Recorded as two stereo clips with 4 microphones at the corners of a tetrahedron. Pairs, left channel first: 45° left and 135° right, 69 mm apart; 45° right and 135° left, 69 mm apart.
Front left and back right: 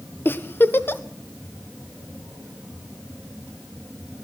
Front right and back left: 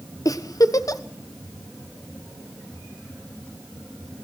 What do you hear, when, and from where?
0.2 s a giggle: 15° right, 1.2 m